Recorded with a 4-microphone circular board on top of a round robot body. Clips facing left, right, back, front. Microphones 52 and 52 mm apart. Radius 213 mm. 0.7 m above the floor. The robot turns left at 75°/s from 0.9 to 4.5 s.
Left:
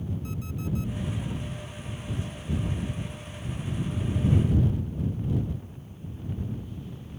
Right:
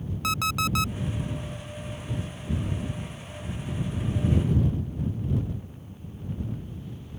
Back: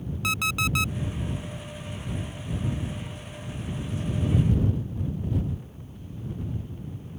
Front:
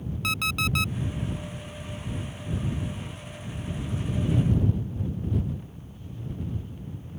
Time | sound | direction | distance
0.2 | an alarm clock | 95° right | ?